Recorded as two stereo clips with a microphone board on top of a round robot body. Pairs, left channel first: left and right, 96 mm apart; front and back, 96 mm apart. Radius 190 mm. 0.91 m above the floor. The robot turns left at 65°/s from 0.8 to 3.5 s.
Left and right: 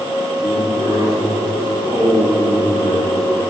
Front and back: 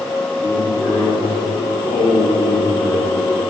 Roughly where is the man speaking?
Left.